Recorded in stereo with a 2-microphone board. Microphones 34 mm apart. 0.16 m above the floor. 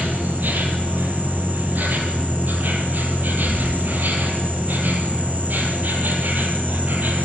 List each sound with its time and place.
0.0 s an insect: 60° right (ahead or behind), 4 m